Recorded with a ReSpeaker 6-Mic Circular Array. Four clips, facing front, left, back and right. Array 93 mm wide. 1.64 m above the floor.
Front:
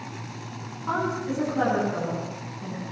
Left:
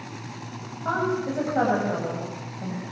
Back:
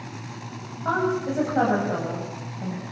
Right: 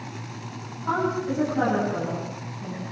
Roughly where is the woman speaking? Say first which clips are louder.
Even, back 3 dB; behind left.